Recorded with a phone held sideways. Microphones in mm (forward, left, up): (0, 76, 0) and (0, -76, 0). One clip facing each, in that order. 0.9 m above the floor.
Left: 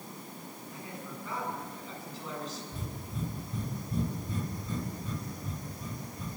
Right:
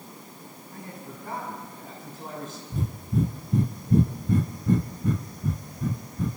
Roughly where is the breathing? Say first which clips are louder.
Right 12 dB; right.